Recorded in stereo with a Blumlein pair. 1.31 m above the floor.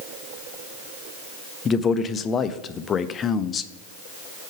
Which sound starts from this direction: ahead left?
A man speaking, at 1.6 s.